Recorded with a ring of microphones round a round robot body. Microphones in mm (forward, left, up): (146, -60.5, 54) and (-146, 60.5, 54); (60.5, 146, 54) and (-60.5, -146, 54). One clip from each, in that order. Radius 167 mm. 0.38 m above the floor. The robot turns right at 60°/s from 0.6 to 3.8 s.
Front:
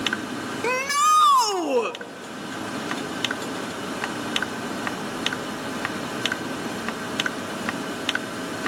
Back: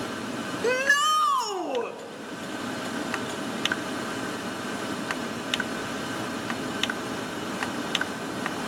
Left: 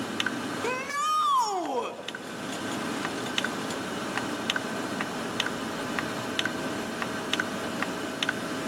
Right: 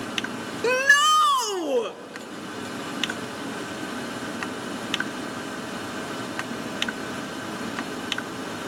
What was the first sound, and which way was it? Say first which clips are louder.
A shout: front 2 dB, right 12 dB; 105° right.